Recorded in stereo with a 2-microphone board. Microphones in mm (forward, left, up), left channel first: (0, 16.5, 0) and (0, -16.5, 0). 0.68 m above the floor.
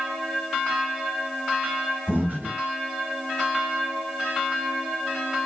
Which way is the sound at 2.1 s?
70° right (ahead or behind).